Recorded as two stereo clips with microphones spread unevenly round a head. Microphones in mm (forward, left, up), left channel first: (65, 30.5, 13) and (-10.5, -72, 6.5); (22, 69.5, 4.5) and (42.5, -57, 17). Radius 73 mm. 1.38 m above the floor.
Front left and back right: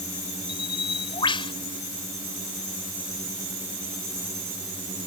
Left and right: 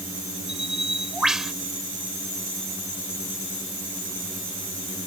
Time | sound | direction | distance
0.5 | a bird | 5° left | ?